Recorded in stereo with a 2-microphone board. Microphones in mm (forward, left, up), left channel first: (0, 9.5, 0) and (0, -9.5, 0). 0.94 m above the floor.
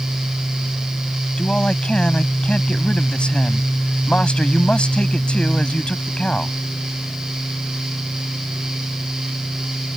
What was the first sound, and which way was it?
A man speaking, 65° left (ahead or behind).